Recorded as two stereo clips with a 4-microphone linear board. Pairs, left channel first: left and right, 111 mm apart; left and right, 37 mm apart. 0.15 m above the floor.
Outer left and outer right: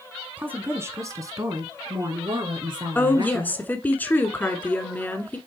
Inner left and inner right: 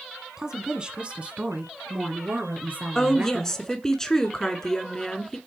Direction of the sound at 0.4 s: 15° right (ahead or behind).